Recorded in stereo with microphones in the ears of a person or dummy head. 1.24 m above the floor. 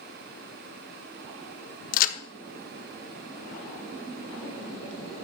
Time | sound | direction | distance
1.9 | a crack | 45° left (ahead or behind) | 1.1 m